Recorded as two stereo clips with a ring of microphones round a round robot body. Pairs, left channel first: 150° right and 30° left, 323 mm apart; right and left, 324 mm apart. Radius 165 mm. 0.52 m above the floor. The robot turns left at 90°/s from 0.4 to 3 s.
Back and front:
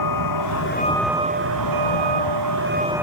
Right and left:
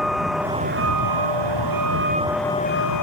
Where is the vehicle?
Straight behind; by 3.0 s 55° right.